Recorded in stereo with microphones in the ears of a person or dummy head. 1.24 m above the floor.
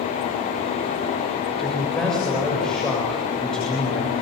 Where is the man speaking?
5° left (ahead or behind), 7 m.